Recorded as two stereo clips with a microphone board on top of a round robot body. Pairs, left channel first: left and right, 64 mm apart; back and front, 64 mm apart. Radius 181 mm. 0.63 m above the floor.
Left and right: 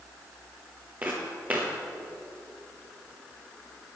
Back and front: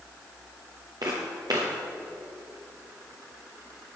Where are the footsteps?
25° right, 0.9 m.